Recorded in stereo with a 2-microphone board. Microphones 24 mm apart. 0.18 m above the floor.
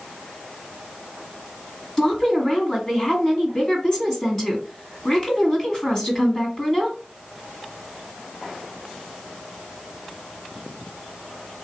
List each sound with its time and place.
2.0 s a woman speaking: 25° left (ahead or behind), 1.7 m